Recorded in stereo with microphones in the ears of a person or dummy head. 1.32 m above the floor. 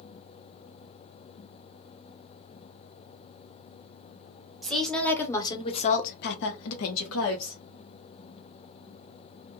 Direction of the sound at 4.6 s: Centre (ahead or behind).